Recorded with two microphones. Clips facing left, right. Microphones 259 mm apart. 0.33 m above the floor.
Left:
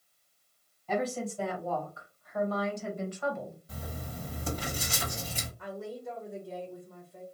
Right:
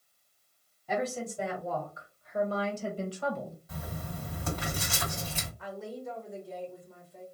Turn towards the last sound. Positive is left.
turn(degrees=10)  # may be behind; listen again after turning